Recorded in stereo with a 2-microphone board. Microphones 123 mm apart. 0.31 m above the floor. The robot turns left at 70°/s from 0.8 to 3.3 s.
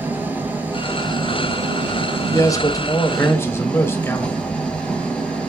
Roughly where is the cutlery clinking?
No cutlery clinking in this recording.